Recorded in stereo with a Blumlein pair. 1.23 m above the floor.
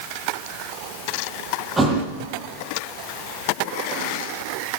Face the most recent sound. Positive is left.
turn(degrees=-10)